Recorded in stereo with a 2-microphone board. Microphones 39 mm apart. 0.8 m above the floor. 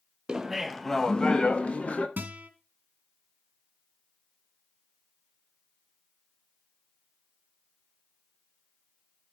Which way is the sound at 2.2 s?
50° right (ahead or behind).